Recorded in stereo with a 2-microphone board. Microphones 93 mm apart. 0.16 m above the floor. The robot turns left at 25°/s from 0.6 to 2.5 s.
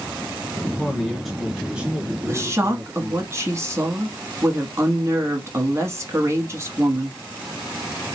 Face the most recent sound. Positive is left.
turn(degrees=-30)  # may be behind; listen again after turning